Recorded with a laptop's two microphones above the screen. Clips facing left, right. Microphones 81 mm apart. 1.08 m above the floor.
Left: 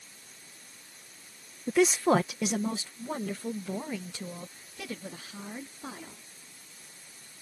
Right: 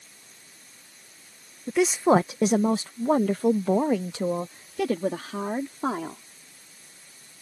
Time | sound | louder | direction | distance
1.7 | a woman speaking | right 3 dB | centre (ahead or behind) | ?